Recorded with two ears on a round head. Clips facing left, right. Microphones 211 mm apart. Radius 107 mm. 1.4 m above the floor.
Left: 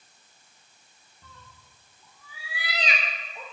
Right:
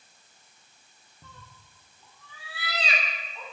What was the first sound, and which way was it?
A cat meowing, 15° right (ahead or behind).